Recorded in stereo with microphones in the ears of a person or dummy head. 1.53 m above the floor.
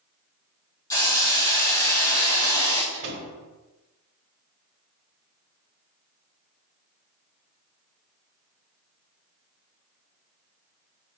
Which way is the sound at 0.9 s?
15° left (ahead or behind).